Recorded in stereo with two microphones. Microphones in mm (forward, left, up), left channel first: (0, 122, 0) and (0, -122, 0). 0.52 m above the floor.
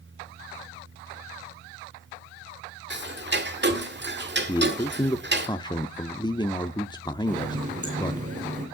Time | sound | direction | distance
2.9 | ticking | 45° right (ahead or behind) | 1.6 m
4.5 | a man speaking | 15° left (ahead or behind) | 0.7 m
7.3 | a running tap | 30° right (ahead or behind) | 6 m